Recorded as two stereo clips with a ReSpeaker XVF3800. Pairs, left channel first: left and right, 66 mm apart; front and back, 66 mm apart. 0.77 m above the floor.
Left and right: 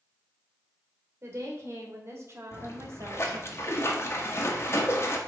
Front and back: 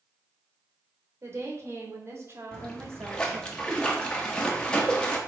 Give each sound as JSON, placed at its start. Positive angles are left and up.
{"t": 1.2, "sound": "a woman speaking", "azimuth_deg": -135, "distance_m": 2.5}
{"t": 2.5, "sound": "a splash", "azimuth_deg": 70, "distance_m": 1.3}